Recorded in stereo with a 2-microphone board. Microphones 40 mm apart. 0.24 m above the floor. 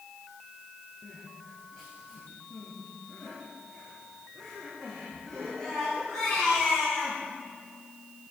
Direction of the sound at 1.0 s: 10° left (ahead or behind).